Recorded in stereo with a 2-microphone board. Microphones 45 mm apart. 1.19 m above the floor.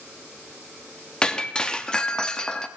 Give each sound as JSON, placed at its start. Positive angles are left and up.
{"t": 1.2, "sound": "breaking glass", "side_deg": 20, "distance_m": 0.8}